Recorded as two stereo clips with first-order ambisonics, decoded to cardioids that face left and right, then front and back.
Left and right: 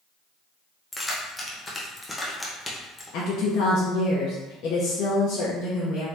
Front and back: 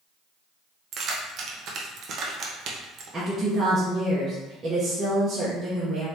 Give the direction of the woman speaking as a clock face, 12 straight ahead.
8 o'clock.